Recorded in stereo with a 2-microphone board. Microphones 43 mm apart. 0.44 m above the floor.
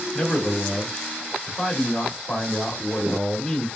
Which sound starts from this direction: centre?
A man speaking, at 0.1 s.